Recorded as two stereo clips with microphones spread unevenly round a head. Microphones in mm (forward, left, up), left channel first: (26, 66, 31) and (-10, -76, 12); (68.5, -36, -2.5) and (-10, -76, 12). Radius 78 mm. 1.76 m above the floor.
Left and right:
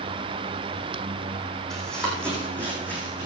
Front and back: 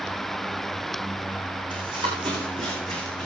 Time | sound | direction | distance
1.7 | running footsteps | 160° left | 4.5 m